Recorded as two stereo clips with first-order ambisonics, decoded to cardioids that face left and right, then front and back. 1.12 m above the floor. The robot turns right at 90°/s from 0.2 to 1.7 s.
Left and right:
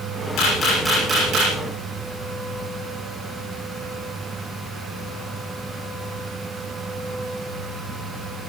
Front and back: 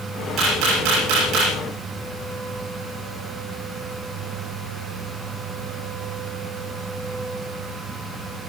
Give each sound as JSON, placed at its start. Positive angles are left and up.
{"t": 0.4, "sound": "a camera shutter", "azimuth_deg": 125, "distance_m": 9.0}